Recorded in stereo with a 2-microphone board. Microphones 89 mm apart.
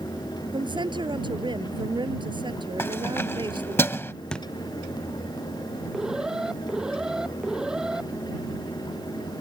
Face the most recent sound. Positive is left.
turn(degrees=-5)  # may be behind; listen again after turning